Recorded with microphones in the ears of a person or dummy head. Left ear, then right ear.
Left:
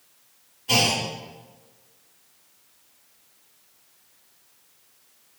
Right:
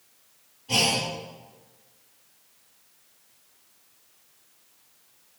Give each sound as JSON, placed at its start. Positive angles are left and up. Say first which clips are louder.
{"t": 0.7, "sound": "a clunk", "louder": "left 2 dB", "side_deg": 60, "distance_m": 4.0}